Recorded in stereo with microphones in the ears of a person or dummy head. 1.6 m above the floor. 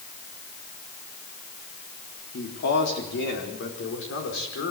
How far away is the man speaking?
About 4 m.